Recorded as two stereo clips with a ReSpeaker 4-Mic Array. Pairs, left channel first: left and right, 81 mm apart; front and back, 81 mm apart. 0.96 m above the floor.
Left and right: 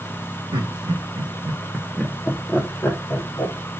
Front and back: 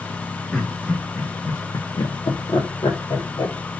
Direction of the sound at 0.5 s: 90° right.